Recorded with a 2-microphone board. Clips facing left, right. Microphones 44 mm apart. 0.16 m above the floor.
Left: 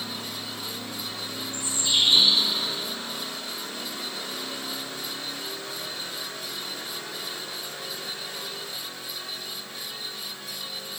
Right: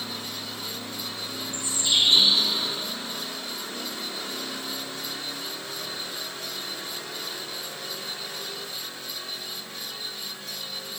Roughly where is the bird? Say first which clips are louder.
Right 1 dB; right.